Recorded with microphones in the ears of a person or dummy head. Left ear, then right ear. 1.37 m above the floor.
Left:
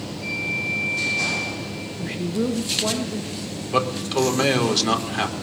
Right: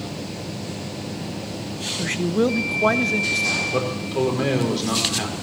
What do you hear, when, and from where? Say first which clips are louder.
2.0 s a man speaking: right 5 dB; 35° right (ahead or behind), 0.6 m
3.7 s a man speaking: left 2 dB; 35° left (ahead or behind), 5 m